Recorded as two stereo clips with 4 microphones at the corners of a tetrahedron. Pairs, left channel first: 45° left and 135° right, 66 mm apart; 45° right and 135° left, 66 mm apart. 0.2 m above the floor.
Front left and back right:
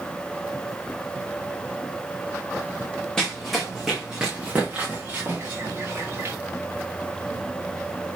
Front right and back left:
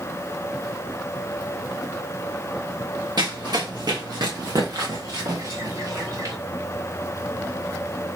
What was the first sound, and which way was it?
Running footsteps, 125° left.